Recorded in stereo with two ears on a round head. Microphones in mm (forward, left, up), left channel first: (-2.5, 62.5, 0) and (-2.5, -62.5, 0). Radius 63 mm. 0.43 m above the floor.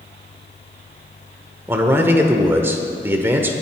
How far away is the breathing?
I don't hear breathing.